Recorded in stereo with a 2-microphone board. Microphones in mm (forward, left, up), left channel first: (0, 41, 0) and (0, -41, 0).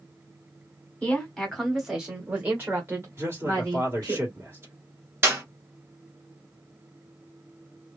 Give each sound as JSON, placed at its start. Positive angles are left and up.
{"t": 1.0, "sound": "a woman speaking", "side_deg": 15, "distance_m": 1.3}
{"t": 3.2, "sound": "a man speaking", "side_deg": -30, "distance_m": 1.6}
{"t": 5.2, "sound": "a clap", "side_deg": -30, "distance_m": 1.6}